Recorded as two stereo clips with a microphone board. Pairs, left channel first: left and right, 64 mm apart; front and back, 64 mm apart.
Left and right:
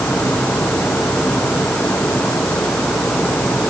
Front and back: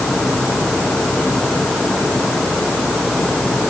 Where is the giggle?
No giggle in this recording.